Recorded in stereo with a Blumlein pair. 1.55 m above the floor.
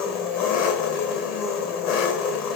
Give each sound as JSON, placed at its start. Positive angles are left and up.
{"t": 0.0, "sound": "an engine running", "azimuth_deg": 35, "distance_m": 0.7}